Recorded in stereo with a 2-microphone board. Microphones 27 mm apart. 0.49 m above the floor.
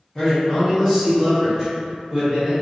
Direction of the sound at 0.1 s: 25° left (ahead or behind).